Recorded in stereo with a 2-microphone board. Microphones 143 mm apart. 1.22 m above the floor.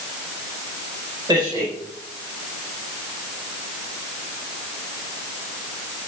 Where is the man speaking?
30° right (ahead or behind), 4.5 m.